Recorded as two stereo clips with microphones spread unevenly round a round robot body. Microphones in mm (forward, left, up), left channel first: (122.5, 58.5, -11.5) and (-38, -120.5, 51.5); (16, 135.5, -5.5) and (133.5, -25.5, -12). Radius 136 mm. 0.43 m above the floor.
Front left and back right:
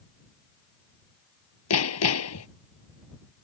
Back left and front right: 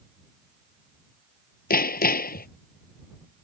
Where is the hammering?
85° left.